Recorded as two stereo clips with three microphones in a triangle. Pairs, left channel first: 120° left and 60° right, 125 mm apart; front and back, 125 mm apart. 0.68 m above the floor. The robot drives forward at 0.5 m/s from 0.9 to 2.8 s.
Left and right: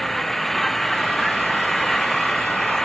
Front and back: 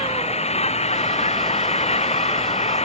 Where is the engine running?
35° left.